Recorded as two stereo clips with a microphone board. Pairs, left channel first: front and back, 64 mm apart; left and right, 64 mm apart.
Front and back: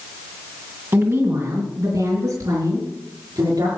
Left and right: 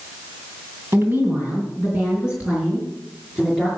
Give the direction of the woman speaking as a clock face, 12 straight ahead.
5 o'clock.